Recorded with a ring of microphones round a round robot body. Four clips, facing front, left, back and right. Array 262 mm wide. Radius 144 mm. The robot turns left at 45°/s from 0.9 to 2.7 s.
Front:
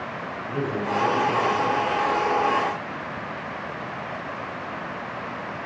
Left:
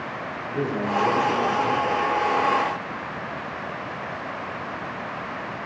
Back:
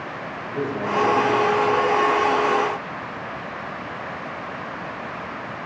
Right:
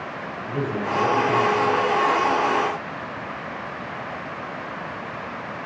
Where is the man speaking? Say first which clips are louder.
Even, back 1 dB; 65° right, 4.5 m; by 2.4 s 130° right, 4.5 m.